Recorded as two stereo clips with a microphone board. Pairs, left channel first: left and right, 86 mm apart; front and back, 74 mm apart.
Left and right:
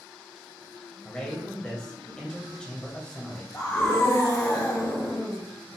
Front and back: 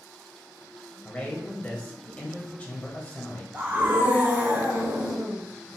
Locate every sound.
1.1 s a man speaking: 30° left, 0.9 m
3.5 s a scream: 130° left, 1.2 m